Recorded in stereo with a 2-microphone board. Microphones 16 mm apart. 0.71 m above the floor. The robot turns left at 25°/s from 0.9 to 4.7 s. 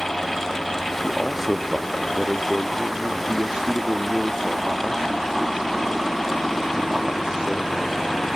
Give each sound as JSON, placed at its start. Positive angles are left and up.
{"t": 1.0, "sound": "a man speaking", "azimuth_deg": -15, "distance_m": 0.9}